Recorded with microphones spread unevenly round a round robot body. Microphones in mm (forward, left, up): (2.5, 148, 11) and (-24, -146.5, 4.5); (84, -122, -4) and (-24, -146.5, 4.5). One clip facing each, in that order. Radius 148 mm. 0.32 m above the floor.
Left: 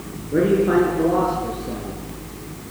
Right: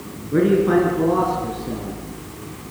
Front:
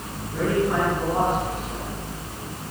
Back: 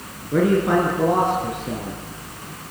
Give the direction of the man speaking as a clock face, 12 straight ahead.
5 o'clock.